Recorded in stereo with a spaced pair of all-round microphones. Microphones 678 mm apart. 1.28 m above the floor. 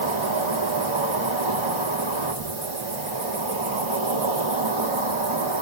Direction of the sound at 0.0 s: 45° right (ahead or behind).